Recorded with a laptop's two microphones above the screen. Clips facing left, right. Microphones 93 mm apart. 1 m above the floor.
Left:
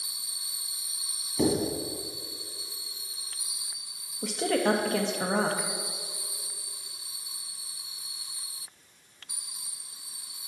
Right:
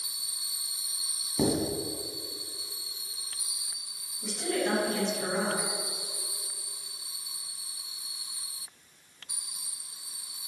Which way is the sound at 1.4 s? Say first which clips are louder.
Left 2 dB; 15° right (ahead or behind).